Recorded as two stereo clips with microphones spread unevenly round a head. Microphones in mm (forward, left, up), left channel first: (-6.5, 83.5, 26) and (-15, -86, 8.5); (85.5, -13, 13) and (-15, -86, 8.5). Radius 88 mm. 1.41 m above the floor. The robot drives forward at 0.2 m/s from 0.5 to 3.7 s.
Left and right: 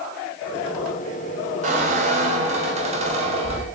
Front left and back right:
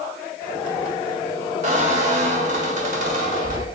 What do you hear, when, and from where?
1.6 s a squeak: 140° right, 1.8 m; by 3.7 s 145° right, 2 m